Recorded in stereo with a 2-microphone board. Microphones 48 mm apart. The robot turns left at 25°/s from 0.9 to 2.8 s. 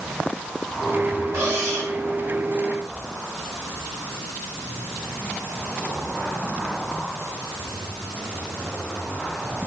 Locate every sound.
1.3 s cutlery clinking: 80° right, 4 m